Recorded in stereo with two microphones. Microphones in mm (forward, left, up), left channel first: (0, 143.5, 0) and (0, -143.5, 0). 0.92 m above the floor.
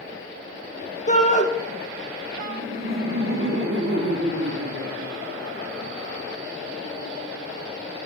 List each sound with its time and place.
1.1 s a shout: 25° left (ahead or behind), 1.0 m
2.4 s laughter: 45° right (ahead or behind), 1.7 m